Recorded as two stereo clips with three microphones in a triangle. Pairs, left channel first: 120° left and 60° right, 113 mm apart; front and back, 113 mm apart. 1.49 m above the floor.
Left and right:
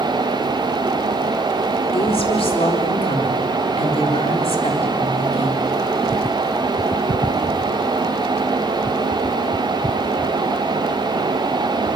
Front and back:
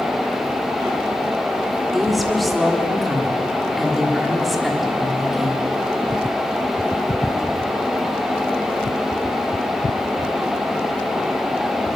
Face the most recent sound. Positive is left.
turn(degrees=90)